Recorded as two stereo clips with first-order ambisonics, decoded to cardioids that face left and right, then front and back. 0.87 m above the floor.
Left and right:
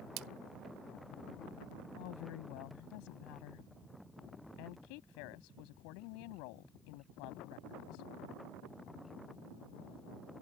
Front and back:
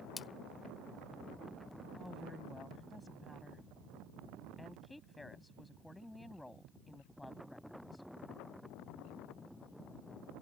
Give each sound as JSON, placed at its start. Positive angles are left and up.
{"t": 0.2, "sound": "a splash", "azimuth_deg": -75}
{"t": 1.9, "sound": "a woman speaking", "azimuth_deg": 85}